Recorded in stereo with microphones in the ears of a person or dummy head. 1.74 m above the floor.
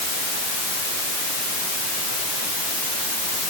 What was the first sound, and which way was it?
Only background noise.